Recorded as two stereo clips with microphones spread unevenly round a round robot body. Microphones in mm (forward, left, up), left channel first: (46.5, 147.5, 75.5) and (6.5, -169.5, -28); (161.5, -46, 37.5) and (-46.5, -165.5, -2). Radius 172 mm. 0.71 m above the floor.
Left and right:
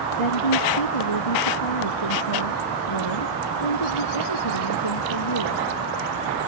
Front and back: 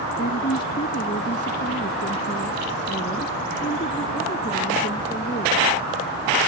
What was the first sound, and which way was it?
A woman speaking, 90° left.